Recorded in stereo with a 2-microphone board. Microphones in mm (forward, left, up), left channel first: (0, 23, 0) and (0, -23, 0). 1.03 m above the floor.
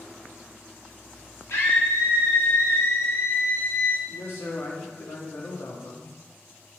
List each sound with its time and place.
1.5 s a scream: 65° left (ahead or behind), 1.8 m; by 4.0 s 45° left (ahead or behind), 0.6 m
4.1 s a man speaking: 60° left (ahead or behind), 1.5 m